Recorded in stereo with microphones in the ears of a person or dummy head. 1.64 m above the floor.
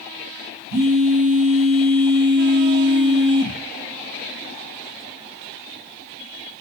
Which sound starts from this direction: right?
A phone buzzing, at 0.7 s.